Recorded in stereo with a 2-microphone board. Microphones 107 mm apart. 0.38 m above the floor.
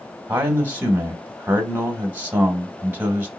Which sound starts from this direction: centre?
A man speaking, at 0.3 s.